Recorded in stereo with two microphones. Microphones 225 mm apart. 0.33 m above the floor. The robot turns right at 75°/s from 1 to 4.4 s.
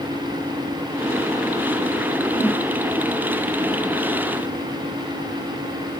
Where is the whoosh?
20° left (ahead or behind), 0.7 m; by 2.6 s 5° left (ahead or behind), 0.7 m.